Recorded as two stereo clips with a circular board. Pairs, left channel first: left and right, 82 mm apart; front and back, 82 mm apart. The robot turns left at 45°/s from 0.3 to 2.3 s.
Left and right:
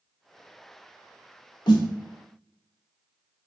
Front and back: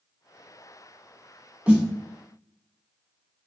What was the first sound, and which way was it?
A snare drum, 105° left.